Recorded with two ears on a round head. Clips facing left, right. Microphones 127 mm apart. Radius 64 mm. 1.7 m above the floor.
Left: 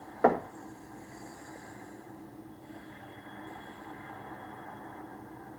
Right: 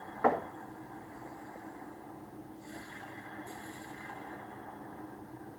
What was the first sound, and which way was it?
Knocking, 45° left (ahead or behind).